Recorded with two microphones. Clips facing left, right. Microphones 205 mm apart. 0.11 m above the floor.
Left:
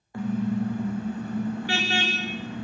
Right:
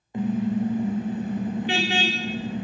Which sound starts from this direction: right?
A car horn, at 0.1 s.